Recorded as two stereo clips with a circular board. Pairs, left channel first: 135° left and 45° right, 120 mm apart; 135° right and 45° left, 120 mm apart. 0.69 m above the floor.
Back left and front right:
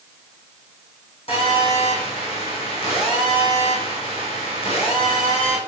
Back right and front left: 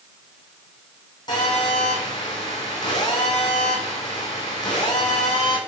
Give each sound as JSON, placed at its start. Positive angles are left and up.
{"t": 1.3, "sound": "a phone buzzing", "azimuth_deg": 175, "distance_m": 7.5}